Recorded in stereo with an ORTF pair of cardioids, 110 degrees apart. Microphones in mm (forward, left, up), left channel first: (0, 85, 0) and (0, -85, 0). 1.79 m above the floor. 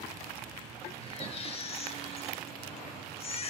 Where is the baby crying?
40° left, 1.8 m.